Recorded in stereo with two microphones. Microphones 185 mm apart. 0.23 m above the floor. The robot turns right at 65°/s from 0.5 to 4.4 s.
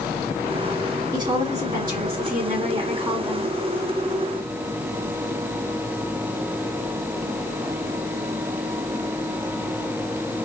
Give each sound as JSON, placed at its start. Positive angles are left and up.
{"t": 1.1, "sound": "a woman speaking", "azimuth_deg": -155, "distance_m": 1.8}